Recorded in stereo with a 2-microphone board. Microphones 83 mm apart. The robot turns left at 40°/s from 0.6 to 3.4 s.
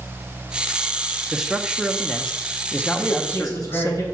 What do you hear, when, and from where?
1.3 s a man speaking: 10° right (ahead or behind), 0.7 m; by 4.0 s 25° left (ahead or behind), 0.7 m
3.0 s a man speaking: 60° left (ahead or behind), 4 m; by 4.0 s 45° left (ahead or behind), 4 m